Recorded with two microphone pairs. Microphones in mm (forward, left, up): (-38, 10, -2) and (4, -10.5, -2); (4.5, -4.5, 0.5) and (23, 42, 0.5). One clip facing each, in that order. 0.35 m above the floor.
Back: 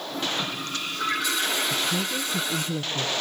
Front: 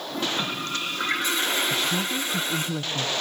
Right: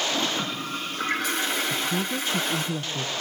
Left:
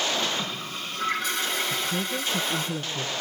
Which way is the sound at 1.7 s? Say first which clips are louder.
Front 1 dB, right 1 dB; 100° right.